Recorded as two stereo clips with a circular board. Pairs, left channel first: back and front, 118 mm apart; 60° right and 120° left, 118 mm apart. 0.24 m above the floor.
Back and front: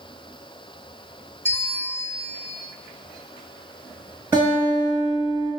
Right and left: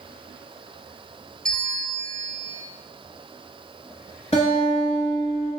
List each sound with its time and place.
1.4 s a bell: 135° right, 0.6 m
4.3 s a guitar: 70° right, 2.0 m